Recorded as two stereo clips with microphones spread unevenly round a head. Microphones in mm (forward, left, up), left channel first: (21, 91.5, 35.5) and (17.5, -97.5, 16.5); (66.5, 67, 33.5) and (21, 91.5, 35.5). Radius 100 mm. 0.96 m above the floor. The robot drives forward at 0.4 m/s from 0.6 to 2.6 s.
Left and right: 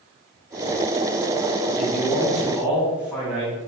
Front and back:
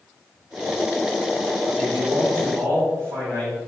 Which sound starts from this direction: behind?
A man speaking, at 1.8 s.